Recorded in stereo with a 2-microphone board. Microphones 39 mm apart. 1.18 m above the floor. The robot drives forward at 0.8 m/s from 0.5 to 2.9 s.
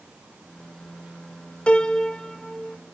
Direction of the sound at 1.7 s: 30° left (ahead or behind).